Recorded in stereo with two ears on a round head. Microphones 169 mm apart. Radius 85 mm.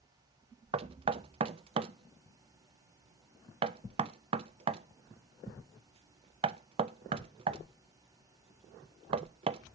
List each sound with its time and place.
0.7 s knocking: 30° right (ahead or behind), 0.5 m